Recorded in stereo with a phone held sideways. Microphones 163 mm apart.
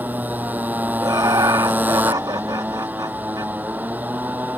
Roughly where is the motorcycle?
Centre.